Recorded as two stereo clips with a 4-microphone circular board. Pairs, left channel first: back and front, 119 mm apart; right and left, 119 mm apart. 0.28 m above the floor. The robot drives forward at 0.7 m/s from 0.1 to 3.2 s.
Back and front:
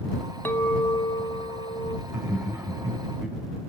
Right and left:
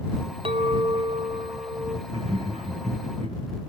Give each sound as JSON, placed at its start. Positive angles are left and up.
{"t": 0.5, "sound": "a clink", "azimuth_deg": 110, "distance_m": 1.0}
{"t": 2.1, "sound": "laughter", "azimuth_deg": 65, "distance_m": 3.0}